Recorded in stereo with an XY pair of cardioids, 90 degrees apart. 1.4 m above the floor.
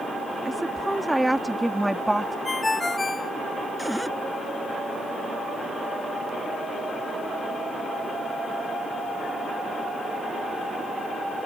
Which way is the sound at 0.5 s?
5° right.